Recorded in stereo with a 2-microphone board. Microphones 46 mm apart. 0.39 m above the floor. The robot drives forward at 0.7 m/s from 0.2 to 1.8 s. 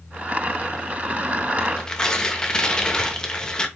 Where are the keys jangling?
No keys jangling in this recording.